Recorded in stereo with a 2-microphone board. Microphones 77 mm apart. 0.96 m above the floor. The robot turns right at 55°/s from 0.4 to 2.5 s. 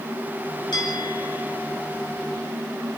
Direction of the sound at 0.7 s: 120° left.